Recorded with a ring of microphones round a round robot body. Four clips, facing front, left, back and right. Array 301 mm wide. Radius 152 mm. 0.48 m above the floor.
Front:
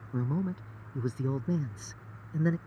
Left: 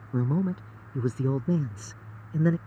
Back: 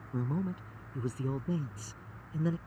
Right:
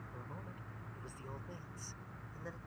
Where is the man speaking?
85° left; by 2.6 s 80° left.